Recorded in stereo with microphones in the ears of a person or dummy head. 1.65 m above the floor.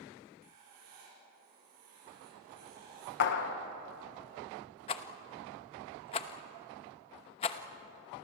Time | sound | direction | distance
0.4 | writing | 45° right (ahead or behind) | 7.5 m
3.2 | a clap | 55° left (ahead or behind) | 1.7 m
4.9 | a rattle | 30° left (ahead or behind) | 1.0 m